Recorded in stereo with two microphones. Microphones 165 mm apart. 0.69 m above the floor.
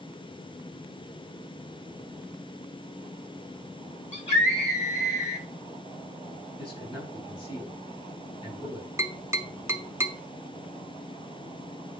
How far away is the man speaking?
About 5.5 m.